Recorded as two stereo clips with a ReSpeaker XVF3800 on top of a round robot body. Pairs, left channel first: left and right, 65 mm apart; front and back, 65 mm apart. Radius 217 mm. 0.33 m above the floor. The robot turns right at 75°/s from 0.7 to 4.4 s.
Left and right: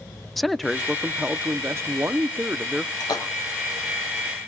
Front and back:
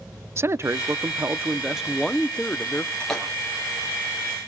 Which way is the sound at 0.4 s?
Straight behind.